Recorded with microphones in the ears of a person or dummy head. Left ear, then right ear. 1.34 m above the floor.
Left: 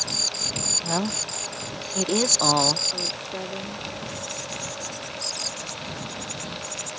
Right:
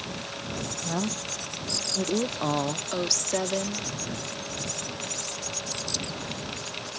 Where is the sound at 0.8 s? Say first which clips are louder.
Left 4 dB; 70° left (ahead or behind).